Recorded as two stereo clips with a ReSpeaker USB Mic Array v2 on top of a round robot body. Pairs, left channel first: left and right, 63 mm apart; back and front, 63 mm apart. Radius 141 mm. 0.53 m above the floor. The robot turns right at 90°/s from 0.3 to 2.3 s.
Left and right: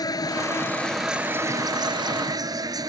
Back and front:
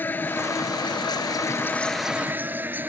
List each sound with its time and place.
0.0 s an insect: 115° left; by 2.9 s 65° right